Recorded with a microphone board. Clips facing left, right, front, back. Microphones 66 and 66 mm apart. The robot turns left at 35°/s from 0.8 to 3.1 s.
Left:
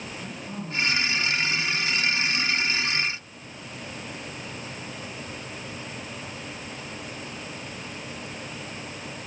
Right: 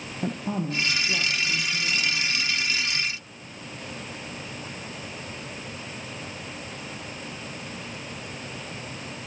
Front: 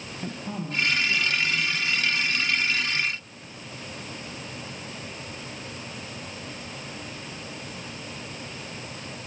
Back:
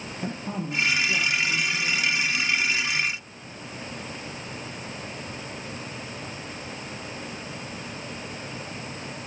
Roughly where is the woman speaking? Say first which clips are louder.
Right 12 dB, back 2 dB; right.